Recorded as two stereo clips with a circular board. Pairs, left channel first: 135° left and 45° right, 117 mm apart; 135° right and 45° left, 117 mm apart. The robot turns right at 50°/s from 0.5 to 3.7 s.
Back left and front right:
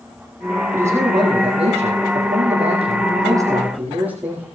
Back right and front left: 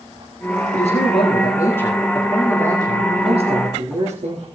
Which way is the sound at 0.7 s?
115° right.